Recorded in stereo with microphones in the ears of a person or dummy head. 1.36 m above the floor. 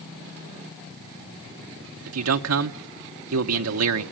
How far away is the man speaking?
About 0.8 m.